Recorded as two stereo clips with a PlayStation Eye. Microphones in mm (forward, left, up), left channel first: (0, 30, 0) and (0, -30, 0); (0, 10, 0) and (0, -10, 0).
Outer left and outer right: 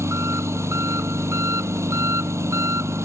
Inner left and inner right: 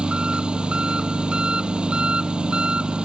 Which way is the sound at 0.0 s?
50° right (ahead or behind).